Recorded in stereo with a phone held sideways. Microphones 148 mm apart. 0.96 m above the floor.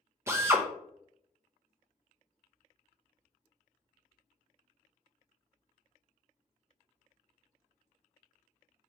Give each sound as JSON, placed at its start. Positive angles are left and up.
{"t": 0.3, "sound": "a drill", "side_deg": -20, "distance_m": 0.6}